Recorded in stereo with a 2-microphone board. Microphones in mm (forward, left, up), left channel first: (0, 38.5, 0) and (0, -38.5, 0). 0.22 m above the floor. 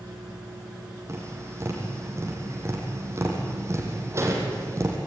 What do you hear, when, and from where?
1.1 s tapping: 35° right (ahead or behind), 5 m